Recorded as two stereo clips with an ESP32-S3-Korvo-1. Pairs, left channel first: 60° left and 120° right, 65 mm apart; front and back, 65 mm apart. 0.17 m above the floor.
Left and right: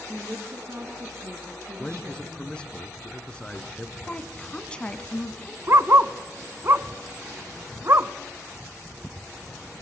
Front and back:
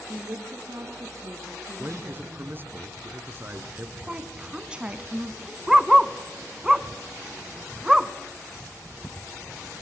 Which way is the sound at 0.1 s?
155° right.